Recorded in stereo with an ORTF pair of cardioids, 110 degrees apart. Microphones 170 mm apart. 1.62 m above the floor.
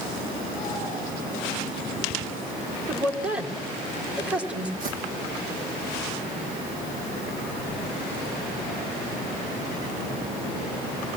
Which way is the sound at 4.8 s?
60° right.